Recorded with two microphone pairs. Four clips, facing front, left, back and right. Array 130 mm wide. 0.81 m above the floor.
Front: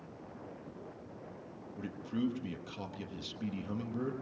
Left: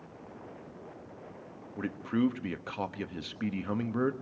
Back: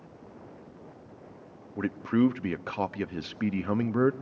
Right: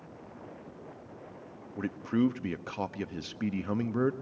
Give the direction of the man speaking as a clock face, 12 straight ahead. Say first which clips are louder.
Right 1 dB, back 11 dB; 6 o'clock.